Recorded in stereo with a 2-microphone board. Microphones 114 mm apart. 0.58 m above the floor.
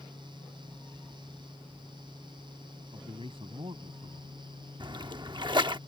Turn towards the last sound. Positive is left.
turn(degrees=-40)  # may be behind; listen again after turning